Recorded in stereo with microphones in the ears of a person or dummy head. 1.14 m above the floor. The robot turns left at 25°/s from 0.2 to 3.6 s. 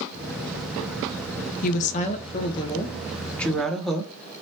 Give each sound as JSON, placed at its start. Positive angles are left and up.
{"t": 1.6, "sound": "a woman speaking", "azimuth_deg": 50, "distance_m": 0.6}